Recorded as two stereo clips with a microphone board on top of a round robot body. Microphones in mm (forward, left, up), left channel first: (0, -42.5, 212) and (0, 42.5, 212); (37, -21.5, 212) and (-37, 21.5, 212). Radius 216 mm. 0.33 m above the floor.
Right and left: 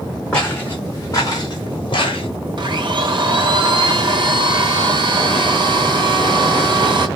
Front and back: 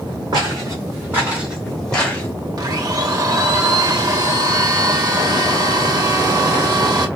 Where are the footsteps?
170° right, 1.3 m; by 2.3 s 100° right, 1.1 m.